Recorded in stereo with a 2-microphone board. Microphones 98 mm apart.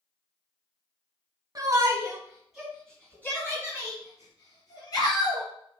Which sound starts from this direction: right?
A shout, at 1.6 s.